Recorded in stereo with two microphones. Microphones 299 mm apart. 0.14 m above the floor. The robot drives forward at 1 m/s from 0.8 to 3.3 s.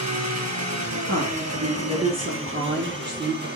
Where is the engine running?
65° right (ahead or behind), 2 m; by 3.6 s 35° right (ahead or behind), 3 m.